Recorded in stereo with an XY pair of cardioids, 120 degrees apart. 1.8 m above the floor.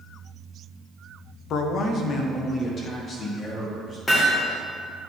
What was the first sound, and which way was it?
A man speaking, 65° left.